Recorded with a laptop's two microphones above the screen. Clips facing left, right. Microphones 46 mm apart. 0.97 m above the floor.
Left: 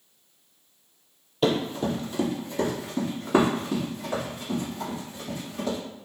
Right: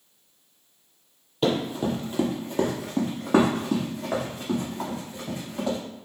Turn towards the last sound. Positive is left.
turn(degrees=-65)  # may be behind; listen again after turning